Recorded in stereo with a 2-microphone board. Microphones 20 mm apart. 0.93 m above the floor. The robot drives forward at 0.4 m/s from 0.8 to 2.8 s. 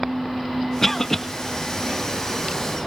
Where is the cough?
10° left (ahead or behind), 1.3 m.